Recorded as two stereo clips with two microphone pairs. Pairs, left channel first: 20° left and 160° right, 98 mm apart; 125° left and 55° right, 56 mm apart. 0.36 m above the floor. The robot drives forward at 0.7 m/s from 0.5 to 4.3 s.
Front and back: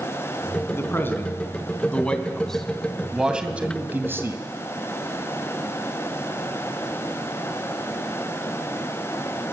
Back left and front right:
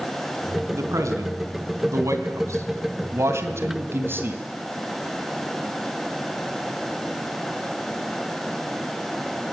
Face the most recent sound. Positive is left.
turn(degrees=-95)